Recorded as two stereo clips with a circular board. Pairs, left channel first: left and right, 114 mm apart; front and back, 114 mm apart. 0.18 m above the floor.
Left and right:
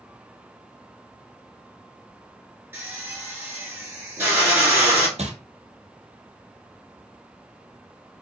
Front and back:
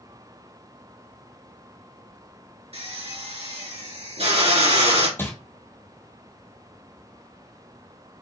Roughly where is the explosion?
I don't hear an explosion.